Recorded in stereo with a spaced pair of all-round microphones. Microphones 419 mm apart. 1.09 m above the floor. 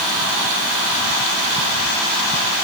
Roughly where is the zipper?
No zipper in this recording.